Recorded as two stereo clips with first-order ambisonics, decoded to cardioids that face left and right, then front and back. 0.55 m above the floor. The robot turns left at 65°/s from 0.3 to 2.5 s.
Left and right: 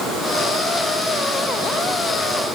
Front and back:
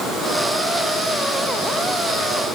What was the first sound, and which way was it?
Only background noise.